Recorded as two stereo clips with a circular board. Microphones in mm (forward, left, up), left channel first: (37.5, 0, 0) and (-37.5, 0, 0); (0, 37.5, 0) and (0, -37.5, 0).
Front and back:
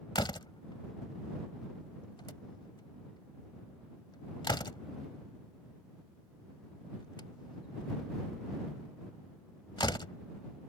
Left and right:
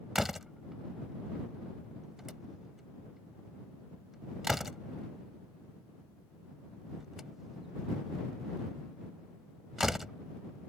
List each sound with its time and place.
0.1 s a door slam: 5° right